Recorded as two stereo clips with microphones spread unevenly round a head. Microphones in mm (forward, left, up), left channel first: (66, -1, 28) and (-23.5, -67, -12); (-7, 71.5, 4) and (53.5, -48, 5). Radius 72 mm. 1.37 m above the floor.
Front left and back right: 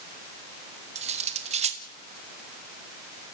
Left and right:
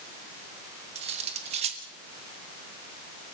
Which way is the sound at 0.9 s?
115° right.